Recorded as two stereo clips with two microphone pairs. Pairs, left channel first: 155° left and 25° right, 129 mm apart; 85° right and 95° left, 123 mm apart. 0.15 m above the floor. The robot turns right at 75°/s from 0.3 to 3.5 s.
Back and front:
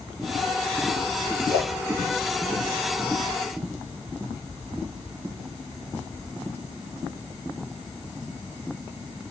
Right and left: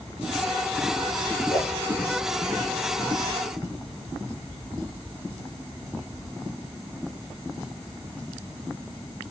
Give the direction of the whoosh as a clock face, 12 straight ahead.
5 o'clock.